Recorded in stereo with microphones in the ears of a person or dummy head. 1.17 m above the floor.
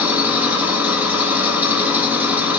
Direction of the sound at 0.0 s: 5° right (ahead or behind).